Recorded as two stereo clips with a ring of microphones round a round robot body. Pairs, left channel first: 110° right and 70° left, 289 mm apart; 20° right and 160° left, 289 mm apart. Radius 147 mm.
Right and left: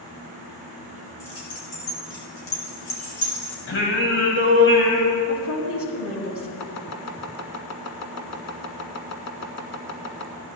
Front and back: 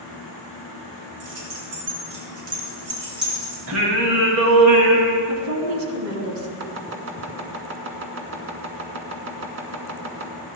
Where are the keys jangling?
160° right, 5 m; by 3.6 s 125° right, 6 m.